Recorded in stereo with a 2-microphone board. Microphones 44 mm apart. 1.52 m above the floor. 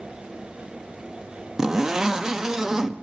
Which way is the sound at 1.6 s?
10° right (ahead or behind).